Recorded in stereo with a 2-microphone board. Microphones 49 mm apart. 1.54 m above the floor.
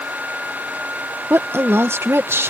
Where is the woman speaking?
60° right (ahead or behind).